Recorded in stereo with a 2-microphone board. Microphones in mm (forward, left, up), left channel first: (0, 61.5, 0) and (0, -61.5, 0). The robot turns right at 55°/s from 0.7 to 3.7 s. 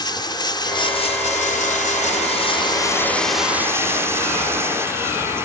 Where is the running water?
35° left; by 5.5 s 160° right.